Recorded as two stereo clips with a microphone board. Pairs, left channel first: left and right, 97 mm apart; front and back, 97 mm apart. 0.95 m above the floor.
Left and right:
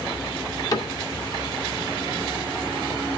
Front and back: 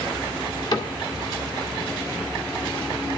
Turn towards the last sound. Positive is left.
turn(degrees=40)